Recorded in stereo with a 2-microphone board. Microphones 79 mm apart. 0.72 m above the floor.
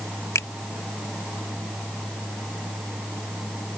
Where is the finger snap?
40° left (ahead or behind).